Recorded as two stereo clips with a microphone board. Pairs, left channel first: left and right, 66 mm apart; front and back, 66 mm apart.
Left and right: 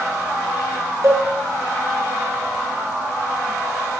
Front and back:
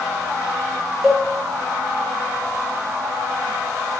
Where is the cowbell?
90° right, 0.5 m.